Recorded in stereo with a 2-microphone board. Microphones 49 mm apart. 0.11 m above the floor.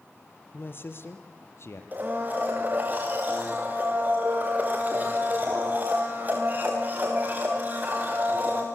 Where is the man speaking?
40° left (ahead or behind), 2.5 m; by 1.8 s 55° left (ahead or behind), 3 m.